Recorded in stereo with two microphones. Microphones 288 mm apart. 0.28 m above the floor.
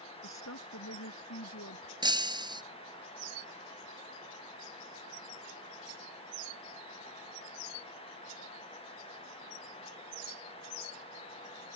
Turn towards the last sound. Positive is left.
turn(degrees=-15)  # may be behind; listen again after turning